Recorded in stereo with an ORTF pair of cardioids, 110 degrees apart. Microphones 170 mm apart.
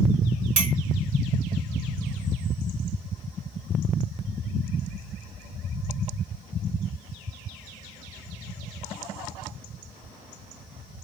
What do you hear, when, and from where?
0.6 s a clink: 50° right, 2.5 m